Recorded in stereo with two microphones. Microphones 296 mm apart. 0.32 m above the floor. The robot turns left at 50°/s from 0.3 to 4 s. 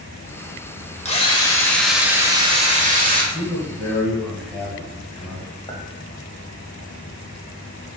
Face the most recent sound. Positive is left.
turn(degrees=15)  # may be behind; listen again after turning